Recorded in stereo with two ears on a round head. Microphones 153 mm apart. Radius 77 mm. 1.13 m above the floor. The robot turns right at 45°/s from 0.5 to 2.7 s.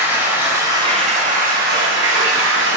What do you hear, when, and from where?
0.0 s running water: 165° right, 0.9 m; by 2.8 s 70° right, 0.9 m